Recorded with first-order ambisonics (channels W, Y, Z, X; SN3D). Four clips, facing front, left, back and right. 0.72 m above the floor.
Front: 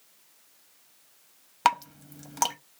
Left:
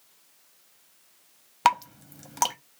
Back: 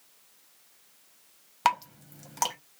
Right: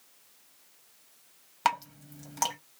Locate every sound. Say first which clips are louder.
1.6 s dripping: left 6 dB, front 2 dB; 65° left, 0.5 m